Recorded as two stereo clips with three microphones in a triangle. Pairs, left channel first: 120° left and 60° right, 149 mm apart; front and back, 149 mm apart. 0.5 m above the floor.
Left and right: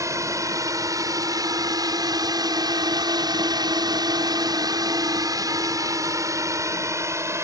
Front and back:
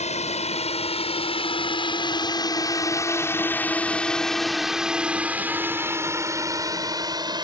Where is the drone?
Straight ahead; by 7.4 s 130° right.